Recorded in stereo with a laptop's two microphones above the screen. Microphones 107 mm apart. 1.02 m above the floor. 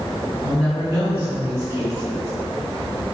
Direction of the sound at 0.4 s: 30° right (ahead or behind).